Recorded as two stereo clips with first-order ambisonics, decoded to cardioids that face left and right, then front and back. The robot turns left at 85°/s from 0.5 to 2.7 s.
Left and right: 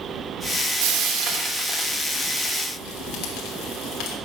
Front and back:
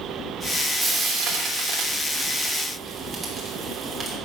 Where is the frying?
90° right, 3 m; by 4.2 s 110° left, 3 m.